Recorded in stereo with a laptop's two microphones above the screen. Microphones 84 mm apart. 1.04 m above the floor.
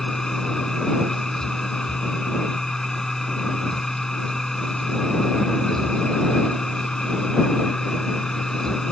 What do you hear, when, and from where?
0.0 s a machine running: 5° left (ahead or behind)